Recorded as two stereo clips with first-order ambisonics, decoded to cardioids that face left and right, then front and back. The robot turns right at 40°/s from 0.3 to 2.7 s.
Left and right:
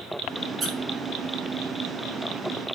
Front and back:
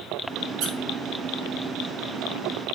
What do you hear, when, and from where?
0.6 s a squeak: 165° right, 3 m; by 0.7 s 160° right, 3 m